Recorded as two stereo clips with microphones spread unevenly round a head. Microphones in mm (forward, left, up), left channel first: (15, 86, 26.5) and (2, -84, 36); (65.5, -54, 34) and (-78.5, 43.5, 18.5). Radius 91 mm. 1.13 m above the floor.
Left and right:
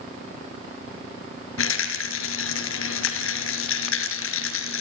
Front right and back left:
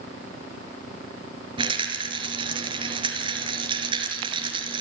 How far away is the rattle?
About 4.5 m.